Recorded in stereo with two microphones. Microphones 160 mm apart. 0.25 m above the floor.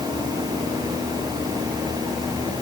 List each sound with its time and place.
Only background noise.